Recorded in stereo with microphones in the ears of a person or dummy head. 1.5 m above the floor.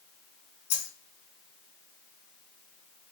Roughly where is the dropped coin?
Left.